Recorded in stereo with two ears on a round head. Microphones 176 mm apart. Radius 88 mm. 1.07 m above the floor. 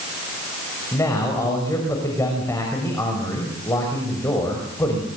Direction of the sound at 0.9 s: 15° left (ahead or behind).